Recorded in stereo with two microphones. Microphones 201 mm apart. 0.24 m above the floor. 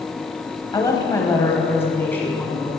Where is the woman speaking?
20° left (ahead or behind), 1.0 m; by 2.7 s 5° left (ahead or behind), 1.9 m.